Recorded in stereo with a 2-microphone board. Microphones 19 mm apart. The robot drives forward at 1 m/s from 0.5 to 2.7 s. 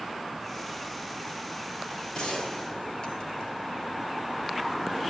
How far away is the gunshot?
About 4 m.